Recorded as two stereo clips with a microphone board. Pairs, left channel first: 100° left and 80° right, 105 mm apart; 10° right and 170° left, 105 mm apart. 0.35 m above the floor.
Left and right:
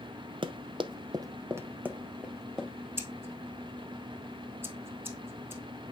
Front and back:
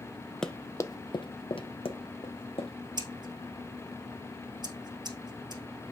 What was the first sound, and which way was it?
Running footsteps, 95° right.